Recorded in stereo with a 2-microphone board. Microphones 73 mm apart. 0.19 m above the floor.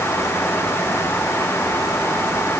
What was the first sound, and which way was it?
Only background noise.